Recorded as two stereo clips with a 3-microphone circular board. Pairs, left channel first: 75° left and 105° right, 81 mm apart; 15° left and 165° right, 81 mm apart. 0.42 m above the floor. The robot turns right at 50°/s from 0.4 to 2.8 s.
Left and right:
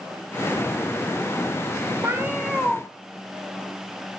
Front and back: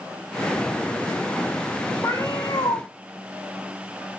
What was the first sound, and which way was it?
A cat meowing, 40° right.